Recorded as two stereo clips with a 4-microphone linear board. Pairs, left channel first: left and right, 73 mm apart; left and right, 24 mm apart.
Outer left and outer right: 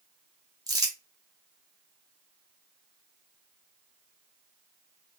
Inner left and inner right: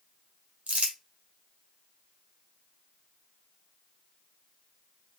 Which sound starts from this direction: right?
Crumpling, at 0.7 s.